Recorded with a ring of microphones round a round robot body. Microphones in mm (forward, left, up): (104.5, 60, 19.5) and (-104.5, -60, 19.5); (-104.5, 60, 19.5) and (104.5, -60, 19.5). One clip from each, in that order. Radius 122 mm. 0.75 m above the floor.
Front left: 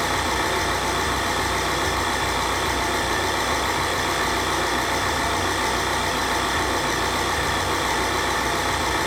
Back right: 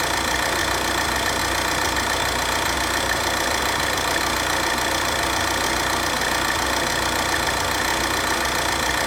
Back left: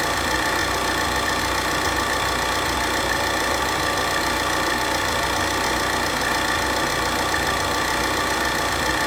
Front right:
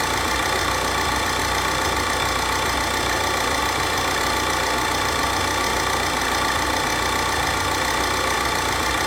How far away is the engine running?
About 1.8 m.